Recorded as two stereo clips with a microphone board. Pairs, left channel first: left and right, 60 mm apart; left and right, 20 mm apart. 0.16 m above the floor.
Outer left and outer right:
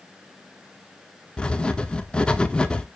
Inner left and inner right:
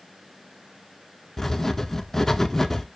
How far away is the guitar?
I don't hear a guitar.